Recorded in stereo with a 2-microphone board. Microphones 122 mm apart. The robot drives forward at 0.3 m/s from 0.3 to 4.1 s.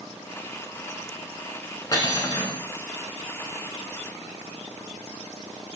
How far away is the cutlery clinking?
About 0.7 m.